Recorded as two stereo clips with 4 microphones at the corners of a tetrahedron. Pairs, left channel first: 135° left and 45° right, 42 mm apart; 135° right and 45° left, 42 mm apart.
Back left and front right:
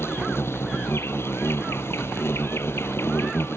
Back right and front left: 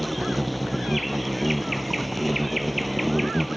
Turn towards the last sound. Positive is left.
turn(degrees=135)